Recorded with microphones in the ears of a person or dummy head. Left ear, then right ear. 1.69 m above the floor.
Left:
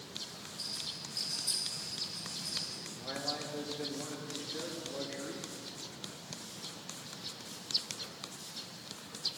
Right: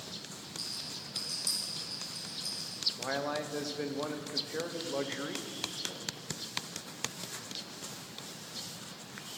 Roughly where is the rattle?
Right.